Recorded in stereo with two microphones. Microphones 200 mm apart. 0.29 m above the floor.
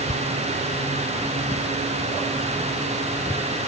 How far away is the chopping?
I don't hear chopping.